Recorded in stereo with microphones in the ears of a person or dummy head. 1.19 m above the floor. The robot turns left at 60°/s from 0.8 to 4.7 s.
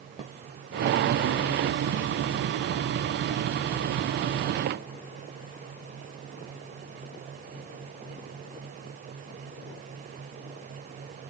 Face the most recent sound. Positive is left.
No sound to turn to.